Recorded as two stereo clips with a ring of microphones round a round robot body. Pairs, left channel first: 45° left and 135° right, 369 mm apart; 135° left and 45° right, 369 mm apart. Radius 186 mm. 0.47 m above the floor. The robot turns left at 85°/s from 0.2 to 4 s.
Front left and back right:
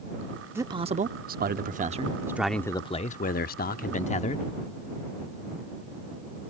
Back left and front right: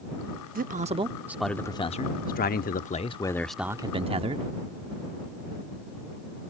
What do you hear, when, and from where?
0.6 s a man speaking: 60° right; by 4.5 s 5° left